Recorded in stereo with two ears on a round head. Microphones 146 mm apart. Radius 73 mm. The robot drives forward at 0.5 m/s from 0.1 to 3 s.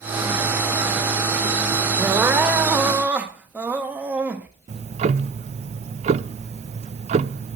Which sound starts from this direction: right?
Ticking, at 4.7 s.